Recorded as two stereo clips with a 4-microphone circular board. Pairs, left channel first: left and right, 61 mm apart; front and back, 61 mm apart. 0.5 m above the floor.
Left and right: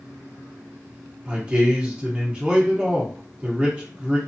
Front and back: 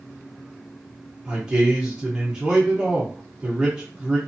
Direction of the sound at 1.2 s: 130° right.